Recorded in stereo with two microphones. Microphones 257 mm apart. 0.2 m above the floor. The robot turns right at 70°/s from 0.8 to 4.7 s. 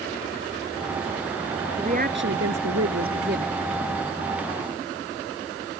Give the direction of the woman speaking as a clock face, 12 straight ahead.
5 o'clock.